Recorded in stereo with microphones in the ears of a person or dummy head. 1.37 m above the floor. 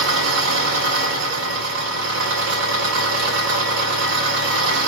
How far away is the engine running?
About 1.1 m.